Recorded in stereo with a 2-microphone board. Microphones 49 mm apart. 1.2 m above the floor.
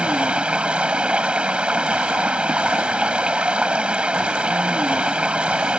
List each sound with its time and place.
0.0 s running water: 25° right (ahead or behind)